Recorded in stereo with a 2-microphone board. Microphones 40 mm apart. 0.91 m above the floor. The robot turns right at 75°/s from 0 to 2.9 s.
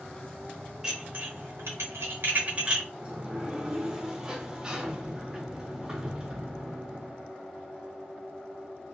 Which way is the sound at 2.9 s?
20° right (ahead or behind).